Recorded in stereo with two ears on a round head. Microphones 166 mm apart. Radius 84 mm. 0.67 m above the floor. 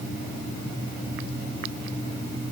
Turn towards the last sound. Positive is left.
No sound to turn to.